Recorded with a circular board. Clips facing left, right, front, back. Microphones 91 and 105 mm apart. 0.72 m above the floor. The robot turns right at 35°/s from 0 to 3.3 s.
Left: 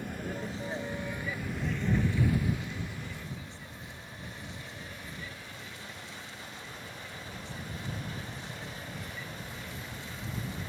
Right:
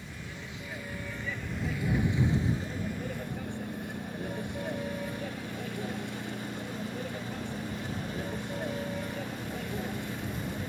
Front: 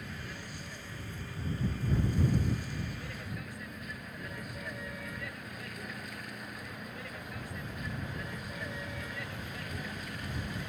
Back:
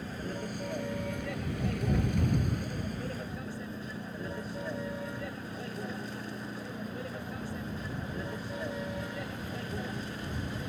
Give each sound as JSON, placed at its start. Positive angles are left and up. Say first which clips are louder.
{"t": 0.0, "sound": "a vehicle", "louder": "left 7 dB, back 7 dB", "azimuth_deg": 125}